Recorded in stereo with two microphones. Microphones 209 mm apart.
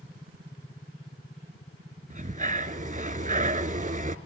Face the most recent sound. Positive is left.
turn(degrees=-35)  # may be behind; listen again after turning